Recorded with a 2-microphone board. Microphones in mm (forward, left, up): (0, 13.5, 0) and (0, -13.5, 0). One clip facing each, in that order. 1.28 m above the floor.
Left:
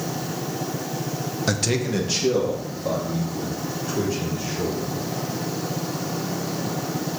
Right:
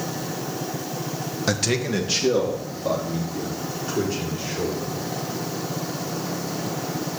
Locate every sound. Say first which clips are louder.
1.5 s a man speaking: right 1 dB; 5° right (ahead or behind), 0.6 m; by 4.9 s 10° right (ahead or behind), 5.5 m